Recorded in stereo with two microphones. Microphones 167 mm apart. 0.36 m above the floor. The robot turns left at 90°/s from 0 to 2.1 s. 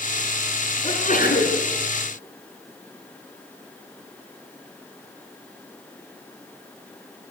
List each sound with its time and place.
0.8 s a sneeze: 150° left, 3.5 m; by 1.6 s 85° left, 3.5 m